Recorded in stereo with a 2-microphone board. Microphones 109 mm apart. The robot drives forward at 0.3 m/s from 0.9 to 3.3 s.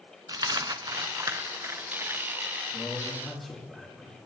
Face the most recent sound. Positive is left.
turn(degrees=-5)  # may be behind; listen again after turning